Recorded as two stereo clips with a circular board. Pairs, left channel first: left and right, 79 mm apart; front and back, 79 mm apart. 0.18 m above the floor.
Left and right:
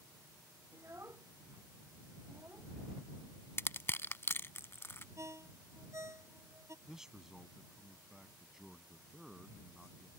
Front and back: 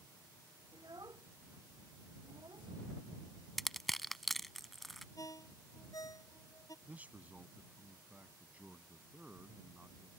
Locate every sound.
0.7 s a child speaking: 145° right
3.6 s crushing: 85° left
5.2 s a ringtone: 40° right
6.8 s a man speaking: 160° right